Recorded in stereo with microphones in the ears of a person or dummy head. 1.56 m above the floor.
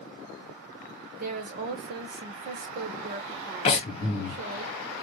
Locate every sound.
1.1 s a woman speaking: 45° right (ahead or behind), 0.5 m
3.6 s breathing: 35° left (ahead or behind), 0.8 m